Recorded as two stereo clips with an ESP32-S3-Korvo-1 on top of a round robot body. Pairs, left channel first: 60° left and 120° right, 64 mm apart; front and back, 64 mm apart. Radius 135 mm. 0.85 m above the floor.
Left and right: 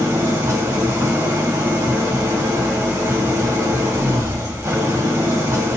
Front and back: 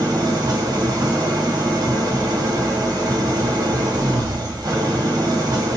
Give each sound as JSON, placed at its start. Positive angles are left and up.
{"t": 0.0, "sound": "an engine running", "azimuth_deg": -160, "distance_m": 1.4}